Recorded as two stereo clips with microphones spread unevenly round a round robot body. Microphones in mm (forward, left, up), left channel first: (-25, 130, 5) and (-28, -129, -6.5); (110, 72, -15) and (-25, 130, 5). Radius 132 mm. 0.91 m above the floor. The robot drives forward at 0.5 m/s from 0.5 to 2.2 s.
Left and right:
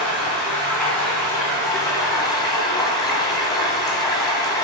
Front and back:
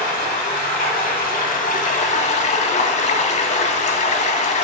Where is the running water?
5° left, 1.3 m; by 4.6 s 15° left, 0.5 m.